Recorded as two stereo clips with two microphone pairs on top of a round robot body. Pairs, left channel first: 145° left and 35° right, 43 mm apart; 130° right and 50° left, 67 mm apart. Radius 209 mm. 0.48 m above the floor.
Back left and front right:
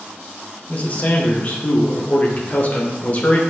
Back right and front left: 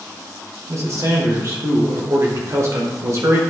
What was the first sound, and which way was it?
A man speaking, 90° left.